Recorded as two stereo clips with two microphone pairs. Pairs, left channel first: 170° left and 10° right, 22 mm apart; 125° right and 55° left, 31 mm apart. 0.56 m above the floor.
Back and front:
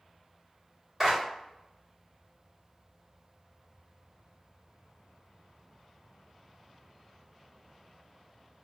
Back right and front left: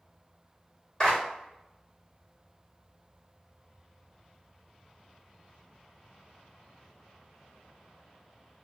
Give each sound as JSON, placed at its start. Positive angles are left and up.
{"t": 1.0, "sound": "a clap", "azimuth_deg": -85, "distance_m": 1.1}